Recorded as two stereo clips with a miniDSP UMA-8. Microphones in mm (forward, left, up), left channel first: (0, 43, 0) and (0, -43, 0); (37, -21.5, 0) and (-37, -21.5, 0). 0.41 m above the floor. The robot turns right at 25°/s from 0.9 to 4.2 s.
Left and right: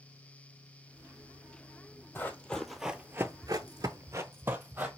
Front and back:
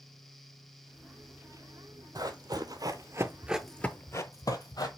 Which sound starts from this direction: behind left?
Running footsteps, at 2.1 s.